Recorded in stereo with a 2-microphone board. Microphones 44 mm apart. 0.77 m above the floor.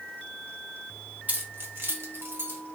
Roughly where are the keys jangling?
Right.